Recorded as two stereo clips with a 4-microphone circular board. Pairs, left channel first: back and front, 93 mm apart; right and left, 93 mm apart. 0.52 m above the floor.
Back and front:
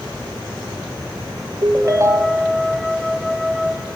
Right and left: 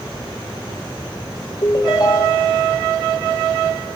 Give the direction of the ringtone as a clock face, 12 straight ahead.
2 o'clock.